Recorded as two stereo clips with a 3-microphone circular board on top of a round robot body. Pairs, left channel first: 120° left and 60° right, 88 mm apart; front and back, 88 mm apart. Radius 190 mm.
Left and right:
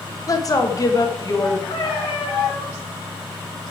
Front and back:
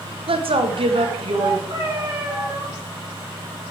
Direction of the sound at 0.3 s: 170° left.